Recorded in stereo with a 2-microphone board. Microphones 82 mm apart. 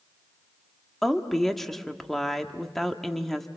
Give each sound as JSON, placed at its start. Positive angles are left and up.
{"t": 1.0, "sound": "a woman speaking", "side_deg": 5, "distance_m": 1.3}